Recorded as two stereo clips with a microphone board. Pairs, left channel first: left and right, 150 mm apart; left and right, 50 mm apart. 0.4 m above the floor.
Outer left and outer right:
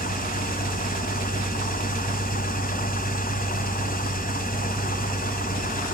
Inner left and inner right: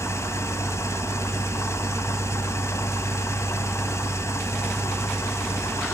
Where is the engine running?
70° left (ahead or behind), 1.9 m.